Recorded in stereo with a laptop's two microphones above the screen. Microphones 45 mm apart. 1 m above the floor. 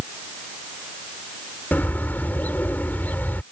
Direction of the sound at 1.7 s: 45° left (ahead or behind).